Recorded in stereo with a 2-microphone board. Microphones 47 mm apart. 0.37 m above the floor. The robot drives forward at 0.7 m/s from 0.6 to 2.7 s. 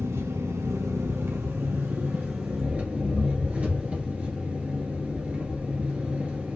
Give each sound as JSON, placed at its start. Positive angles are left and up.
{"t": 0.0, "sound": "an engine running", "side_deg": -80, "distance_m": 0.8}